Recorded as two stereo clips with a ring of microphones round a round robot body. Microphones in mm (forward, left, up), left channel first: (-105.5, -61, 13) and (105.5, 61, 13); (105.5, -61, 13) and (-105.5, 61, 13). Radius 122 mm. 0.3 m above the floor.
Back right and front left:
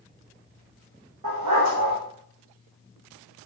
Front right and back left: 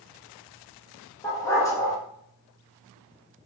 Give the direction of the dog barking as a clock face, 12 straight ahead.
10 o'clock.